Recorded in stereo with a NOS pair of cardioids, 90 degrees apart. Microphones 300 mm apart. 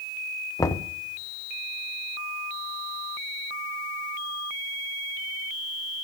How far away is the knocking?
About 0.6 m.